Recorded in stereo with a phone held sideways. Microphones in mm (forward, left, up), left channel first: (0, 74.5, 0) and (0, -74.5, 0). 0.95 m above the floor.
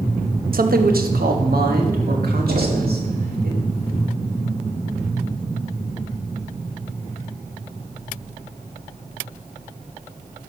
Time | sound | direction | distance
0.5 | a man speaking | 70° right (ahead or behind) | 0.8 m
2.5 | knocking | 55° right (ahead or behind) | 1.0 m